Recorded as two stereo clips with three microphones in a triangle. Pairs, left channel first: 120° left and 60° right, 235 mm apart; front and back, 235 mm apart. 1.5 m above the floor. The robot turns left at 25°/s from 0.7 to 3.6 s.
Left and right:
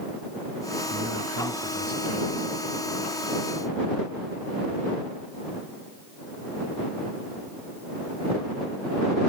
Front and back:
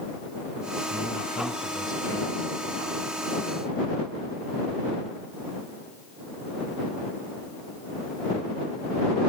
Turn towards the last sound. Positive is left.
turn(degrees=-115)